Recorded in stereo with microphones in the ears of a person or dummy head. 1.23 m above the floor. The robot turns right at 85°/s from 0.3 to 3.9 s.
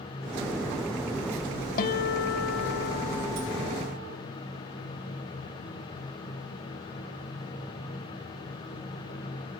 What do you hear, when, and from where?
1.8 s a guitar: 45° left, 0.5 m; by 4.2 s 135° right, 0.5 m